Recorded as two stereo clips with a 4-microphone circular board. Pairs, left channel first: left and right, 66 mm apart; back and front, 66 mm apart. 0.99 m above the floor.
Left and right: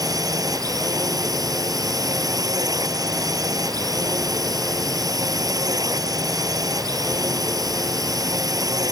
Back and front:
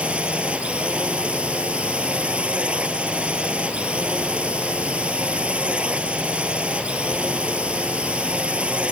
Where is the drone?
75° right.